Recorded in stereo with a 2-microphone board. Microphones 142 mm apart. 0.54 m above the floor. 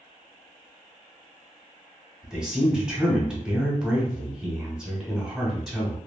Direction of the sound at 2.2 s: 5° right (ahead or behind).